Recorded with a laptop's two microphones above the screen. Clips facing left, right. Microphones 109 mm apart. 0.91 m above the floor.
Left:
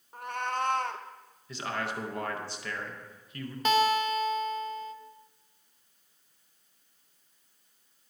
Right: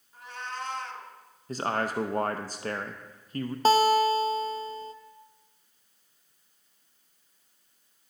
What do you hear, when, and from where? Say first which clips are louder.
0.1 s a cat meowing: left 6 dB; 60° left (ahead or behind), 0.7 m
1.5 s a man speaking: right 5 dB; 40° right (ahead or behind), 0.6 m
3.6 s a guitar: right 4 dB; 35° right (ahead or behind), 0.7 m